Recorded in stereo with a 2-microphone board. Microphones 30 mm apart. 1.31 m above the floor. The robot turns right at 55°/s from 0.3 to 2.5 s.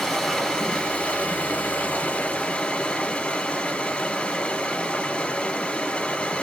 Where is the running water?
15° left, 1.8 m; by 6.4 s 135° left, 1.8 m.